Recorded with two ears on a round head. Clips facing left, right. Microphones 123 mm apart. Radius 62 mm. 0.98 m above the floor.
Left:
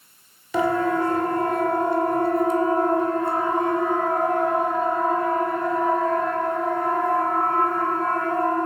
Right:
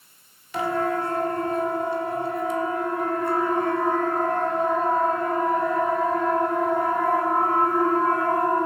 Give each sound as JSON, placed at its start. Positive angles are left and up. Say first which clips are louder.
{"t": 0.5, "sound": "a siren", "louder": "left 4 dB", "side_deg": 70, "distance_m": 4.5}